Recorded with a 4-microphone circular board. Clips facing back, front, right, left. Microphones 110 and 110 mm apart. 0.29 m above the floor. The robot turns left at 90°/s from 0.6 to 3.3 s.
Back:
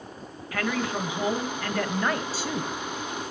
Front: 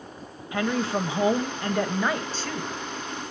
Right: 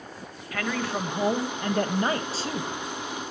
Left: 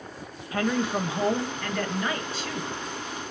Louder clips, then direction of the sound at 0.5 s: Front 3 dB, left 3 dB; 50° left.